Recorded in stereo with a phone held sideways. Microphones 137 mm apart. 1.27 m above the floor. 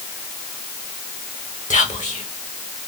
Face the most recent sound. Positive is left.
turn(degrees=65)  # may be behind; listen again after turning